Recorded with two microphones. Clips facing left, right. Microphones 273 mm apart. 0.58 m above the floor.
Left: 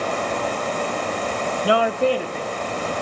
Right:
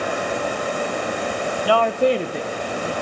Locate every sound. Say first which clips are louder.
1.6 s a woman speaking: right 1 dB; 30° left (ahead or behind), 0.6 m; by 2.9 s 45° right (ahead or behind), 1.5 m